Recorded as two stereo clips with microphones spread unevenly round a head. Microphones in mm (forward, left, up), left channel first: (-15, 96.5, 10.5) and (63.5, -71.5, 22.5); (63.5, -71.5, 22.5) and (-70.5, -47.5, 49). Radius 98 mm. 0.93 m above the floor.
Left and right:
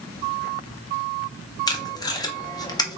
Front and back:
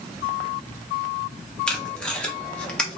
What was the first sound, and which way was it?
Tape being pulled, 60° left.